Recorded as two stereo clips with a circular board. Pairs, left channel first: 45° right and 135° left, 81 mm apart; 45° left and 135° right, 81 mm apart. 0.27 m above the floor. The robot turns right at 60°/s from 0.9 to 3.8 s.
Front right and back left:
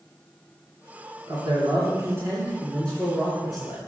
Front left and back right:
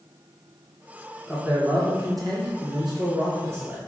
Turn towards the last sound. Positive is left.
turn(degrees=-70)